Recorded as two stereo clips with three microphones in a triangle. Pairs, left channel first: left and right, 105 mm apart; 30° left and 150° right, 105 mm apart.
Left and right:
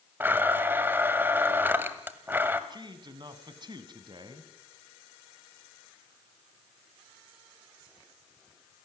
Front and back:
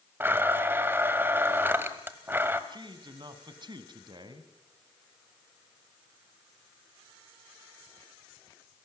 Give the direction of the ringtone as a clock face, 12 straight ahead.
No ringtone in this recording.